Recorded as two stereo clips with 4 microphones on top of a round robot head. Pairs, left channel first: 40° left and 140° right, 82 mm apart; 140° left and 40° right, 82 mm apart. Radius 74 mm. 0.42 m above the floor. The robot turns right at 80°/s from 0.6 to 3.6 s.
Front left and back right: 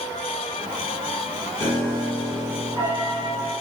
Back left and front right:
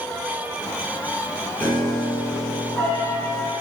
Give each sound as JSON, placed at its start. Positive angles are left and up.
{"t": 1.6, "sound": "a piano", "azimuth_deg": 75, "distance_m": 1.4}